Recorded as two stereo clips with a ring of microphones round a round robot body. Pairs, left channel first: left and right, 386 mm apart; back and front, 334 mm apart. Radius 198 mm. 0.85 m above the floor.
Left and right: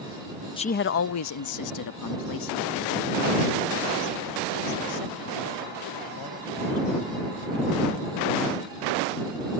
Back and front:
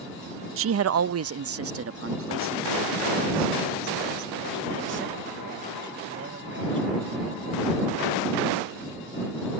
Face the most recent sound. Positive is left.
turn(degrees=55)